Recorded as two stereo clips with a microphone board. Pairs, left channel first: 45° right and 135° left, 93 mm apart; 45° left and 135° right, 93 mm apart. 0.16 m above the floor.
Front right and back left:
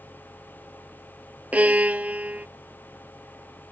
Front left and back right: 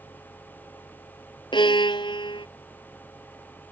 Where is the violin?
65° left.